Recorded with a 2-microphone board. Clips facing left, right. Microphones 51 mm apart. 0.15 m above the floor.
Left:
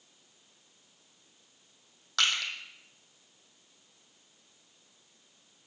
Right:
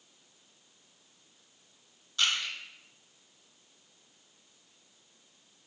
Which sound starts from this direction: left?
Crushing, at 2.2 s.